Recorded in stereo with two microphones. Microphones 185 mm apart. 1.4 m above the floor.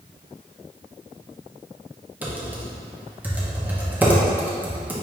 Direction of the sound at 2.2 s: 10° right (ahead or behind).